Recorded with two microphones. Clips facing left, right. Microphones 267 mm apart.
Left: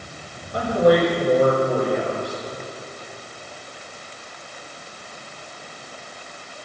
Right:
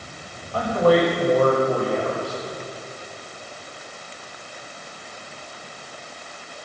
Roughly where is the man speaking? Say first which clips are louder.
Left 1 dB; centre.